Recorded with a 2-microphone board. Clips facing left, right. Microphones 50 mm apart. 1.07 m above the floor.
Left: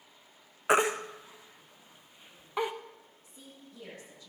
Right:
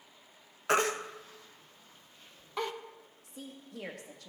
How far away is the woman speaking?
About 1.7 m.